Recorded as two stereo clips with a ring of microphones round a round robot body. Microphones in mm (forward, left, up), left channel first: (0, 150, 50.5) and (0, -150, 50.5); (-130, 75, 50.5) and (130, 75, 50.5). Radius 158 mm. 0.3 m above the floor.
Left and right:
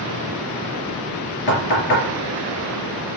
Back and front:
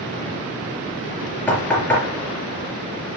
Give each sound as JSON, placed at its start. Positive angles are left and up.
{"t": 1.5, "sound": "knocking", "azimuth_deg": 95, "distance_m": 3.5}